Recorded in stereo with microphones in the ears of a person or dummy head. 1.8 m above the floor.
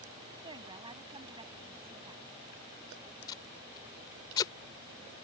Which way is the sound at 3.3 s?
25° left (ahead or behind).